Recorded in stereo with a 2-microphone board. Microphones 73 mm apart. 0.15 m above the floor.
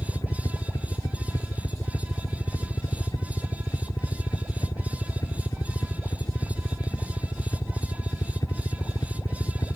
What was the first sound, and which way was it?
A helicopter, 60° left (ahead or behind).